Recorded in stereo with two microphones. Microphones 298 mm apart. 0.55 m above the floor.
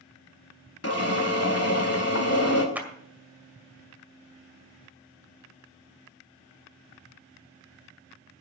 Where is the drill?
55° left (ahead or behind), 2 m.